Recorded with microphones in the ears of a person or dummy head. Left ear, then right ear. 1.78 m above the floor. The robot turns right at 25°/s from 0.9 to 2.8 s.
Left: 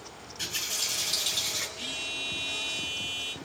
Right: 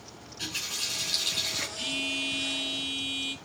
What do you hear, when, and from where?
0.4 s a running tap: 25° left (ahead or behind), 2.5 m; by 1.7 s 10° left (ahead or behind), 2.5 m
1.8 s a phone buzzing: 20° right (ahead or behind), 1.4 m; by 3.3 s 5° left (ahead or behind), 1.4 m